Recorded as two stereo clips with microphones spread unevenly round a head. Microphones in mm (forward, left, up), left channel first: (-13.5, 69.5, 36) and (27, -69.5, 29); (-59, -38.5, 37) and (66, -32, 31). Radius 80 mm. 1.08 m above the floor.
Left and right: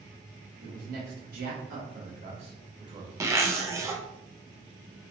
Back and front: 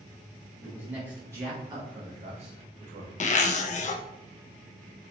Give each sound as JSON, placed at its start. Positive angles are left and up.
{"t": 0.6, "sound": "a man speaking", "azimuth_deg": -80, "distance_m": 1.4}
{"t": 3.2, "sound": "a zipper", "azimuth_deg": -145, "distance_m": 0.5}